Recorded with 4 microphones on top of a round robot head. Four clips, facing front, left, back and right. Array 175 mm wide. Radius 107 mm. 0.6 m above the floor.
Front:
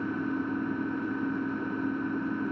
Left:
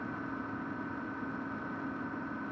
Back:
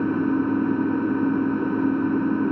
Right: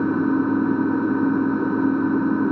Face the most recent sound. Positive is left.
turn(degrees=-120)